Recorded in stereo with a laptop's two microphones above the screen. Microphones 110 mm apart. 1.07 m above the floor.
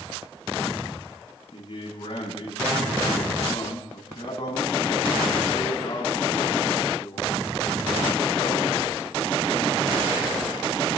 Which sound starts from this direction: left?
A man speaking, at 1.5 s.